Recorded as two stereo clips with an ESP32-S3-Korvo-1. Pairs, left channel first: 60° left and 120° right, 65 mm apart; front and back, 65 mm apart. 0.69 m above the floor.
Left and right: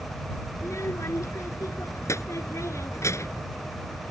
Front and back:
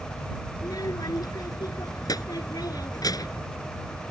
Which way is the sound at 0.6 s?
15° left.